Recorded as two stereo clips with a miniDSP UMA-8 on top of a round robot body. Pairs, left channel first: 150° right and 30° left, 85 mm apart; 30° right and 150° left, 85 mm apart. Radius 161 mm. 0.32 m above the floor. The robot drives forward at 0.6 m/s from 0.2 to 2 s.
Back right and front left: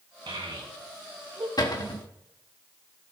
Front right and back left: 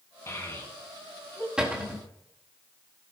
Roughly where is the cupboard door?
Behind right.